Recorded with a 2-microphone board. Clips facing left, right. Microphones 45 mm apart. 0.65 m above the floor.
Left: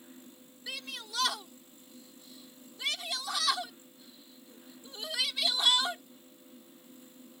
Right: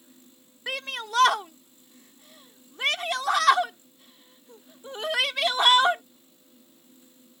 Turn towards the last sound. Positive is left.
turn(degrees=-55)  # may be behind; listen again after turning